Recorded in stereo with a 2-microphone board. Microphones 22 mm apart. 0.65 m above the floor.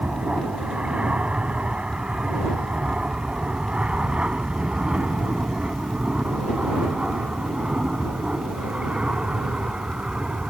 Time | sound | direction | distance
0.0 | an aircraft | 65° right (ahead or behind) | ?